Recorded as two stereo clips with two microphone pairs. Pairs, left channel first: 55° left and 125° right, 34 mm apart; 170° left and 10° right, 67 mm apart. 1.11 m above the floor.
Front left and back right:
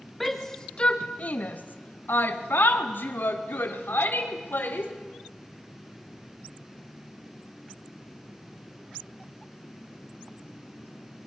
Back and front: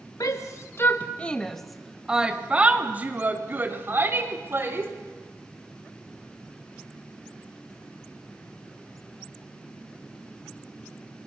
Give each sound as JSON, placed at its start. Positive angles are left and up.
{"t": 0.2, "sound": "a shout", "azimuth_deg": 140, "distance_m": 1.3}